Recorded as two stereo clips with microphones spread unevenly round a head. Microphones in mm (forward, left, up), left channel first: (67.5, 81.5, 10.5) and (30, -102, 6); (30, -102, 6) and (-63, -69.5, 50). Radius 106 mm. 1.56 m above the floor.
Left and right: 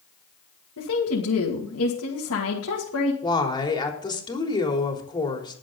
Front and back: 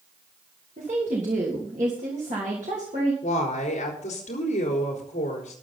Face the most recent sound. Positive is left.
turn(degrees=10)